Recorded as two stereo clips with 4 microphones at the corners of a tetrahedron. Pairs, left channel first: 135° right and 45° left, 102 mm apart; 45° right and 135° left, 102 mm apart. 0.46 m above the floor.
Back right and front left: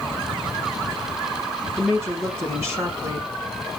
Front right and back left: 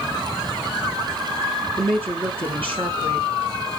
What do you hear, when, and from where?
1.8 s a woman speaking: 105° left, 4 m